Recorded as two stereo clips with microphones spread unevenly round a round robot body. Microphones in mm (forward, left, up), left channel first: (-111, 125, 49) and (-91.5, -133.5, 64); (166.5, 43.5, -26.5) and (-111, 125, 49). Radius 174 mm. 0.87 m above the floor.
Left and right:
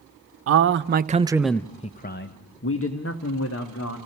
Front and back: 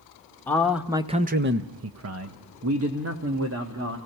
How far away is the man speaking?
About 1.0 m.